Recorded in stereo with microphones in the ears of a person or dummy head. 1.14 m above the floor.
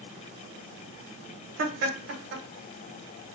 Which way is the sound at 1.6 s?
55° right (ahead or behind).